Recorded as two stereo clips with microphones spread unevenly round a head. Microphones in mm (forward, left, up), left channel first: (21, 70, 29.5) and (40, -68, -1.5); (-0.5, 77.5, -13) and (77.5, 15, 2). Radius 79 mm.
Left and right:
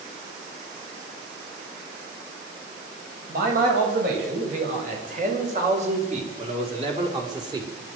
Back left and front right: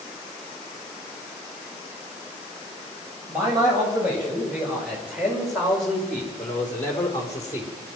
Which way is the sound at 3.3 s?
120° right.